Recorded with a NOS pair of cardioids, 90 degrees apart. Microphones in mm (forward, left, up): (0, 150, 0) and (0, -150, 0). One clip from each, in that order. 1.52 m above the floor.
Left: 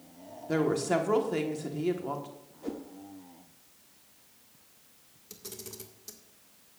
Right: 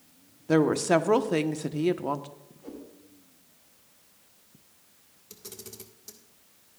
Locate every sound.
0.5 s a woman speaking: 35° right, 1.2 m
2.6 s a whoosh: 55° left, 1.9 m
5.3 s a camera shutter: straight ahead, 1.7 m